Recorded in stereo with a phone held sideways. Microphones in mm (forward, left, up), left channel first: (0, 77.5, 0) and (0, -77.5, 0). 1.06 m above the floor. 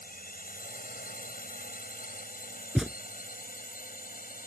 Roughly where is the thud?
Centre.